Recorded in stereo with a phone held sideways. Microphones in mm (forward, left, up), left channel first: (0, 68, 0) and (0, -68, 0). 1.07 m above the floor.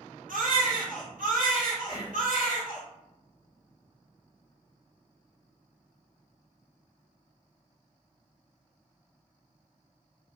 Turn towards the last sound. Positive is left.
turn(degrees=-60)  # may be behind; listen again after turning